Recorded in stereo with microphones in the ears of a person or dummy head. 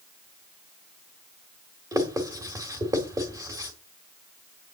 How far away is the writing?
About 1.6 m.